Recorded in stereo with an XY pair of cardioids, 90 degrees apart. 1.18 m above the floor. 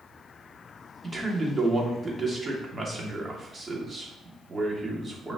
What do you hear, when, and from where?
1.0 s a man speaking: 30° right, 2.5 m